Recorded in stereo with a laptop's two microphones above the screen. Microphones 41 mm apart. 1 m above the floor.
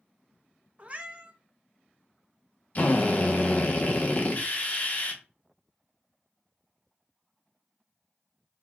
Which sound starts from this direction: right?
A cat meowing, at 0.8 s.